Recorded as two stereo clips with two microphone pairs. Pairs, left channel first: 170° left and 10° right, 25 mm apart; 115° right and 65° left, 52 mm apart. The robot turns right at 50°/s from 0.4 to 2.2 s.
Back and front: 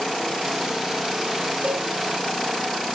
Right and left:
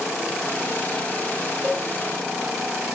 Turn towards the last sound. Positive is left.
turn(degrees=35)